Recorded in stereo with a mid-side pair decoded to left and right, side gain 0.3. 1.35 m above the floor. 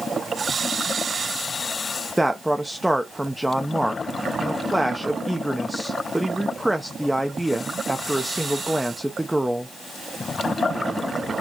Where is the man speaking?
5° right, 0.6 m.